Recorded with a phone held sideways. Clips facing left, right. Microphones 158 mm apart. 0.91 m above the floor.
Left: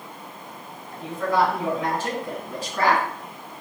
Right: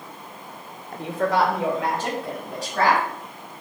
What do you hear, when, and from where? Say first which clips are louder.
0.9 s a woman speaking: right 1 dB; 60° right (ahead or behind), 0.5 m; by 3.0 s 85° right, 2.5 m